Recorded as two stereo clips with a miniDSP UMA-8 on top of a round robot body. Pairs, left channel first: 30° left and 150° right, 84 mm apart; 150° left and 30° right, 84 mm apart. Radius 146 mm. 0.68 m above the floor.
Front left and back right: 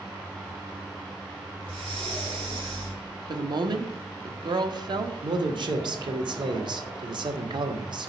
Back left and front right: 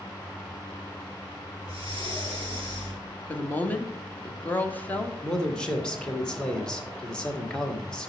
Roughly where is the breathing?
Behind.